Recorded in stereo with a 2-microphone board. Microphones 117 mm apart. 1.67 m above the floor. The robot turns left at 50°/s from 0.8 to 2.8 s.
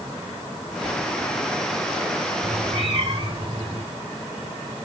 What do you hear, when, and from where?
2.4 s a cat meowing: 70° right (ahead or behind), 4 m; by 3.8 s 60° right (ahead or behind), 4 m